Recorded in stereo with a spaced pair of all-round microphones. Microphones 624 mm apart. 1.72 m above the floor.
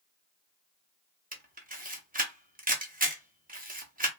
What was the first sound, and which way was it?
A camera shutter, 15° right (ahead or behind).